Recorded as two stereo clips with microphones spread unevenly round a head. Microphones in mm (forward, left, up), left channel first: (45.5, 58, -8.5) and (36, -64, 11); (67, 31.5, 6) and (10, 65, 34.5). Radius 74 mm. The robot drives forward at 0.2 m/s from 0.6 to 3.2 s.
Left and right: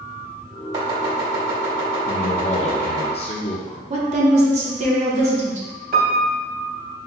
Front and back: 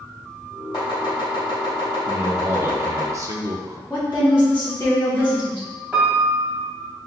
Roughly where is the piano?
Behind right.